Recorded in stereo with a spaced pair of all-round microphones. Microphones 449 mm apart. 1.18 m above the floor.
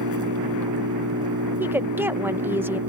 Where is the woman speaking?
5° right (ahead or behind).